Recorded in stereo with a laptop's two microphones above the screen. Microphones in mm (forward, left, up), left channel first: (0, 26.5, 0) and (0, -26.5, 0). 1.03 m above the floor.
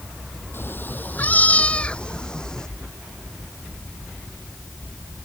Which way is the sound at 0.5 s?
45° left (ahead or behind).